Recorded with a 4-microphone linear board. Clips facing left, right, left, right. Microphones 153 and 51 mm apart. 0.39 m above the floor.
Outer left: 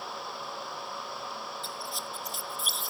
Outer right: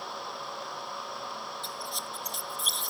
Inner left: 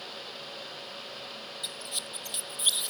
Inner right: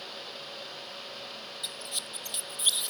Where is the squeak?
Centre (ahead or behind).